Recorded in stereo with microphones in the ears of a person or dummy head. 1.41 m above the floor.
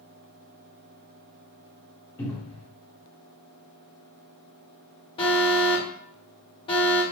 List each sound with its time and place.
2.2 s a cupboard door: 15° left (ahead or behind), 1.2 m
5.2 s an alarm: 30° left (ahead or behind), 1.0 m